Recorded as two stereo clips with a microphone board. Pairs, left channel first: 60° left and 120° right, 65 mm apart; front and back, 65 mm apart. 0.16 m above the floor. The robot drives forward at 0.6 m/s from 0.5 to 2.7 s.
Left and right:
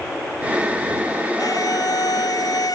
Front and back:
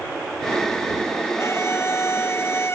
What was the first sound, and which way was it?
A violin, 45° left.